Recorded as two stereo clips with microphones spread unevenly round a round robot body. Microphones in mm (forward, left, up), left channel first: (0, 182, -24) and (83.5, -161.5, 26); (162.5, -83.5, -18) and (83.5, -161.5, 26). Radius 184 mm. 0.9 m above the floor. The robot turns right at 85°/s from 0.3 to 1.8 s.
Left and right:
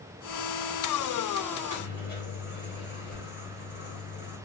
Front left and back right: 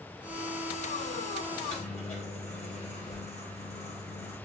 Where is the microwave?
20° left, 3.5 m; by 4.4 s 45° left, 3.5 m.